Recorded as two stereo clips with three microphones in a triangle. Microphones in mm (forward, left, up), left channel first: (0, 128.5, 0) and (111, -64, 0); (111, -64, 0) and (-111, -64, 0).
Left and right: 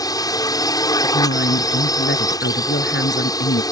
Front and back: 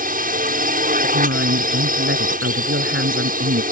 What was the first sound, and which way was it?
A drone, 175° right.